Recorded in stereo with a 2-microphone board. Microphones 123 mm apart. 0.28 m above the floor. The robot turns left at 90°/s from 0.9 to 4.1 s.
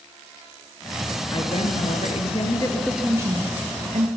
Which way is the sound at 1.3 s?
145° left.